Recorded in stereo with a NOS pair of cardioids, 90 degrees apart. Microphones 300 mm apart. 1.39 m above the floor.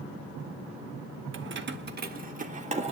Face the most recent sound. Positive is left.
turn(degrees=-20)